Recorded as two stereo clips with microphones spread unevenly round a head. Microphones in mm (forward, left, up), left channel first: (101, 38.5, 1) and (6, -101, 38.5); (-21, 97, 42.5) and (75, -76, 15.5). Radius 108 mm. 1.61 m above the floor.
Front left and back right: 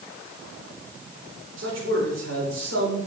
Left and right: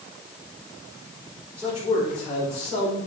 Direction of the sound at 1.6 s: 140° right.